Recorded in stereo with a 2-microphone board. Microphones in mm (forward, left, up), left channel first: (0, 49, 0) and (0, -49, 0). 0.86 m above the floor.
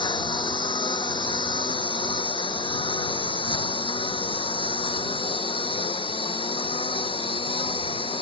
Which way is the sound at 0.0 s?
55° left (ahead or behind).